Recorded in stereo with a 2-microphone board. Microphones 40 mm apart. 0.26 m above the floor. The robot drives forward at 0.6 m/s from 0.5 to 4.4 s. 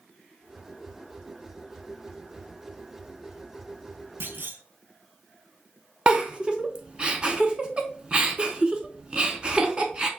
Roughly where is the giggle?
Right.